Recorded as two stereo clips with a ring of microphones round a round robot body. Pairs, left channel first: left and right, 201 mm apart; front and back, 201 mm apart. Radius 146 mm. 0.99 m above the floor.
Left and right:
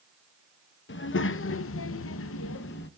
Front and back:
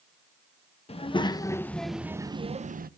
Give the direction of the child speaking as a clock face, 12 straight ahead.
10 o'clock.